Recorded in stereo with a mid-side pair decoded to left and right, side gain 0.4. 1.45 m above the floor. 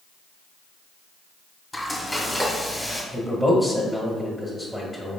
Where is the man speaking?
5° right, 1.7 m.